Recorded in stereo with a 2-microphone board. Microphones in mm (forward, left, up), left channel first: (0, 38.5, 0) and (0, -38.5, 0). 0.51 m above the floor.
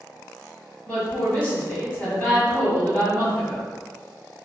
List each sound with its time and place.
0.9 s a woman speaking: 20° left (ahead or behind), 1.5 m